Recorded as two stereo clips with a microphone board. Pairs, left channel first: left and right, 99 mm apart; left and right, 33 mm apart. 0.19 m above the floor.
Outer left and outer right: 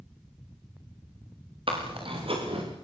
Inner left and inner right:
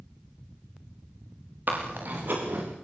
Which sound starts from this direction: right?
Chewing, at 1.7 s.